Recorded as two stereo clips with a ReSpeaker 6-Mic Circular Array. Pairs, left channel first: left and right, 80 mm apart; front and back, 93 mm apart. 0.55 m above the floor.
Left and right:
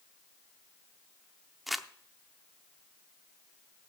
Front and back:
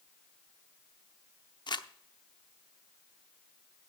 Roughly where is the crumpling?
Ahead.